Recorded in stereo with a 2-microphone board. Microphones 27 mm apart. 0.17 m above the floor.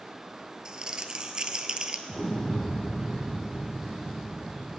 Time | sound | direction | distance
0.7 | crumpling | 30° right (ahead or behind) | 0.9 m
2.1 | an explosion | 40° left (ahead or behind) | 1.6 m